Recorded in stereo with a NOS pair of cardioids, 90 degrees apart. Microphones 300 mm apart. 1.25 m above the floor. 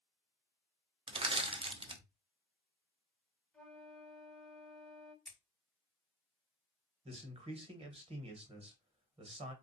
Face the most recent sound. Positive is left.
turn(degrees=-20)